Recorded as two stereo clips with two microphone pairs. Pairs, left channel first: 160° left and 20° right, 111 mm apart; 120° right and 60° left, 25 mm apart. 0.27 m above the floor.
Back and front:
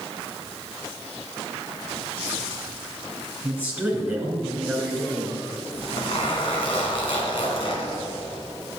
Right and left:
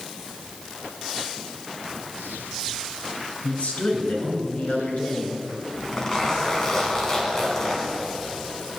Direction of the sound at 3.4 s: 95° right.